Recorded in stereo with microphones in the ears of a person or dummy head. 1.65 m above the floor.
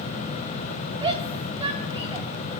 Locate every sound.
1.0 s a shout: 25° right (ahead or behind), 4 m